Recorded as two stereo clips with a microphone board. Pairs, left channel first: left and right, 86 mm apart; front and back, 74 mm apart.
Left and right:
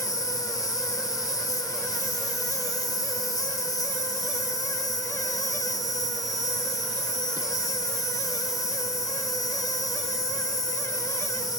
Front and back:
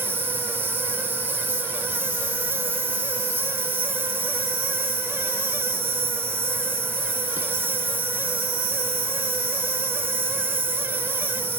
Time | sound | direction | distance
0.0 | an insect | 125° left | 1.0 m